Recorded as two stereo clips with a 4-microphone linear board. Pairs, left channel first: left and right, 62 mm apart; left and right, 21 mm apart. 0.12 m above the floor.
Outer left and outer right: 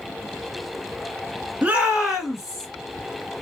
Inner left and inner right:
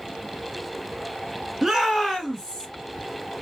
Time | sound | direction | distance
1.6 | a shout | 25° right (ahead or behind) | 1.6 m